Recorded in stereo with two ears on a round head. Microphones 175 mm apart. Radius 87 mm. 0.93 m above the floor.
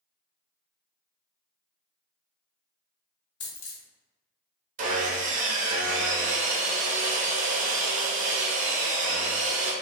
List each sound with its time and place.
3.4 s a dropped coin: 60° left (ahead or behind), 1.2 m
4.8 s sawing: 40° right (ahead or behind), 0.6 m